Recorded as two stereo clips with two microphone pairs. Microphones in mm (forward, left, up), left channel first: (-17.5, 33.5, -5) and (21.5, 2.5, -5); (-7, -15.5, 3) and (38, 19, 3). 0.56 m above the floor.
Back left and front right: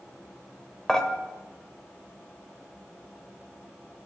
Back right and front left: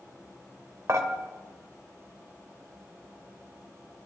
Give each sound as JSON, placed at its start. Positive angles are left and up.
{"t": 0.9, "sound": "dishes clattering", "azimuth_deg": 65, "distance_m": 1.3}